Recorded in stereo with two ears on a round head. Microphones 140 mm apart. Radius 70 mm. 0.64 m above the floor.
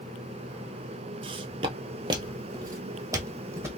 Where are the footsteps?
35° right (ahead or behind), 0.7 m; by 3.7 s 15° right (ahead or behind), 1.4 m.